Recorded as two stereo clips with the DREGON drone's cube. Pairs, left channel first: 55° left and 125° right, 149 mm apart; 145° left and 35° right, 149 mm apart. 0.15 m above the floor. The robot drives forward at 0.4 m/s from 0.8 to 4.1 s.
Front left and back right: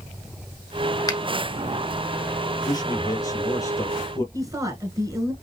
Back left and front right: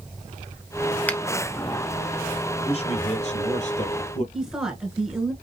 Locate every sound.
1.1 s a finger snap: 75° left, 1.1 m; by 1.2 s 80° left, 1.1 m
2.6 s a man speaking: 110° left, 2.5 m; by 4.2 s 125° left, 3 m
4.3 s a woman speaking: 115° right, 1.6 m